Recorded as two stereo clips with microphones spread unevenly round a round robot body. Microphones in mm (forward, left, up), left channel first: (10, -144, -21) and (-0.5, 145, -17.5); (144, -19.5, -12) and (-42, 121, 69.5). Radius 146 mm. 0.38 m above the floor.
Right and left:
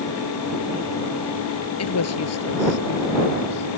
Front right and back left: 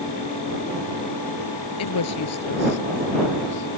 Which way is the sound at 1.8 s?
45° right.